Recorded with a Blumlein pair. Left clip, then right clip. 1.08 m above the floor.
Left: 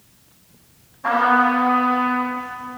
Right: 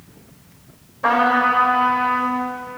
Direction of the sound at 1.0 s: 50° right.